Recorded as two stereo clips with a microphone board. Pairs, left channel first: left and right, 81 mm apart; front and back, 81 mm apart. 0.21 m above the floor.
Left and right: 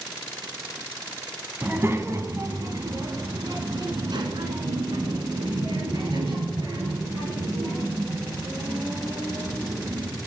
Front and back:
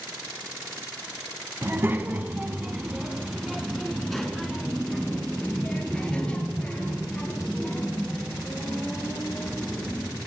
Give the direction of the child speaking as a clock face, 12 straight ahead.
5 o'clock.